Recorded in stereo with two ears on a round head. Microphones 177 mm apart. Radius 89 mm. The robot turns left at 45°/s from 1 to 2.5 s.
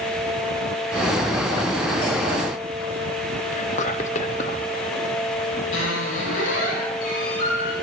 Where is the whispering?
35° left (ahead or behind), 0.6 m.